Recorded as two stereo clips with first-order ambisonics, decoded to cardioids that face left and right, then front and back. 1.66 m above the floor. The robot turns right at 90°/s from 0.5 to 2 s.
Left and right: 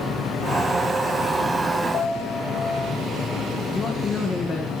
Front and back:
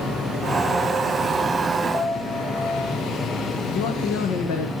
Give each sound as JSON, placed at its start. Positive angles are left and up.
{"t": 1.9, "sound": "a piano", "azimuth_deg": 45, "distance_m": 6.0}
{"t": 3.7, "sound": "a man speaking", "azimuth_deg": 15, "distance_m": 1.5}